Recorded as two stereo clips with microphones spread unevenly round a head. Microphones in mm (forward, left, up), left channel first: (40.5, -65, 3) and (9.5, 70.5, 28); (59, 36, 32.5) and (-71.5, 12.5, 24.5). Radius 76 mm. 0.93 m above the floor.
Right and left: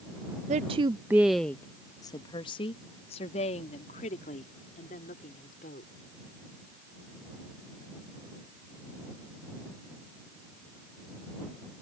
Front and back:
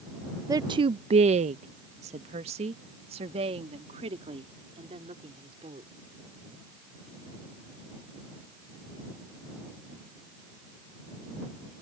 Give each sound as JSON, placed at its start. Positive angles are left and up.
{"t": 0.5, "sound": "a woman speaking", "azimuth_deg": 135}